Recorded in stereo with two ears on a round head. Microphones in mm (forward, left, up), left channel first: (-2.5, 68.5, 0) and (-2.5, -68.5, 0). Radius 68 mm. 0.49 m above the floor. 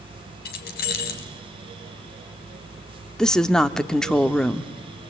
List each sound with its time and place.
0.5 s keys jangling: 70° left (ahead or behind), 3 m
3.2 s a woman speaking: 5° left (ahead or behind), 0.8 m